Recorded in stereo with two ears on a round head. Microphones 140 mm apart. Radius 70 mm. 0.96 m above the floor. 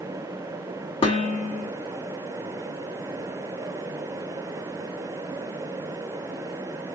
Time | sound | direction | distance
1.0 | dishes clattering | 35° left (ahead or behind) | 1.3 m